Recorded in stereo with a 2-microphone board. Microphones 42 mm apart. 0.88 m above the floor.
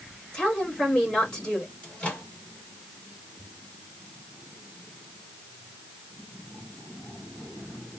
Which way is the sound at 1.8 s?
25° left (ahead or behind).